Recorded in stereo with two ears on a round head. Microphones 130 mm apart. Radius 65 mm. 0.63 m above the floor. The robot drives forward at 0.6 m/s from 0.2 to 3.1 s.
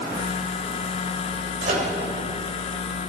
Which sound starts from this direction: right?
A microwave, at 1.6 s.